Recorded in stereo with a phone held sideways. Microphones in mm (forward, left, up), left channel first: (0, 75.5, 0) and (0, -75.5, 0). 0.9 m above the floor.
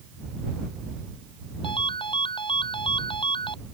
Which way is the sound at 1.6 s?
35° left (ahead or behind).